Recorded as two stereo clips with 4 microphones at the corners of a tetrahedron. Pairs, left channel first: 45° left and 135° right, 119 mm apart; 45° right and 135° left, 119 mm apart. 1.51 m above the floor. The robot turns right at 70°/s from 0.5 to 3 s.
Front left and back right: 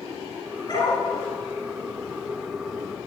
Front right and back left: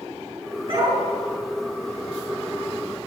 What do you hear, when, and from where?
0.7 s a dog barking: 95° left, 7 m; by 1.0 s 120° left, 7 m